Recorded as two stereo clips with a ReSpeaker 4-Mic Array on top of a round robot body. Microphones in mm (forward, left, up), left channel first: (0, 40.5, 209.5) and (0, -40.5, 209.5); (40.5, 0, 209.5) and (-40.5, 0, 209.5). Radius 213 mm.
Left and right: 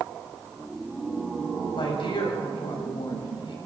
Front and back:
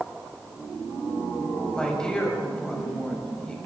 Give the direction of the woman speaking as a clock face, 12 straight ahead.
9 o'clock.